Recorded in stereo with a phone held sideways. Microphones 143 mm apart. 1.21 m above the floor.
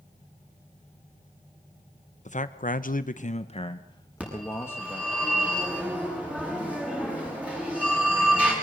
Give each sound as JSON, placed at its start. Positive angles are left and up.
{"t": 2.2, "sound": "a man speaking", "side_deg": 55, "distance_m": 1.2}
{"t": 4.2, "sound": "a phone ringing", "side_deg": -10, "distance_m": 9.5}